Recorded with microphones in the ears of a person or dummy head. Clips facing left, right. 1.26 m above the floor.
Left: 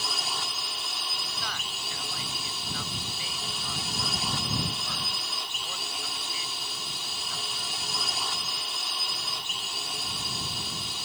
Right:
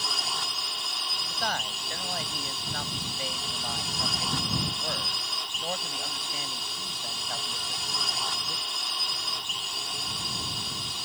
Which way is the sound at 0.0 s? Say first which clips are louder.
Even; 5° left (ahead or behind).